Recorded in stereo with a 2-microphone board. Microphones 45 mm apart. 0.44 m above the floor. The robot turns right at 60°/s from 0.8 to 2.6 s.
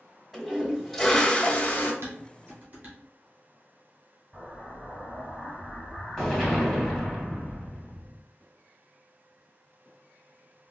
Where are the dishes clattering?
60° right (ahead or behind), 1.8 m; by 3.0 s 30° right (ahead or behind), 1.8 m.